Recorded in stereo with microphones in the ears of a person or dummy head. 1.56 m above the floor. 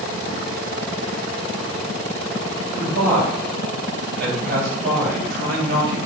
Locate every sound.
2.8 s a man speaking: 65° right (ahead or behind), 9.5 m